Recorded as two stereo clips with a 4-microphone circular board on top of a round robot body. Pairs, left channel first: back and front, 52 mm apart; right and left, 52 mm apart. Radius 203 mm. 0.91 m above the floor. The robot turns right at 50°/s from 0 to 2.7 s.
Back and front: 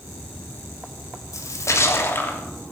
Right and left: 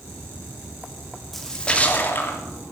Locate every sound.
1.3 s a splash: 175° right, 3 m; by 2.4 s 120° right, 3 m